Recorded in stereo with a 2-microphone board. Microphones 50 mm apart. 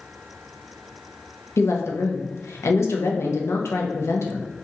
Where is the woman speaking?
70° left (ahead or behind), 0.6 m.